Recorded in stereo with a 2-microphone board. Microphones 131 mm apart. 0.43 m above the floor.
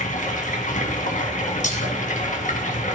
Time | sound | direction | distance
0.0 | running water | 75° left (ahead or behind) | 3 m
1.6 | breaking glass | 70° left (ahead or behind) | 2.5 m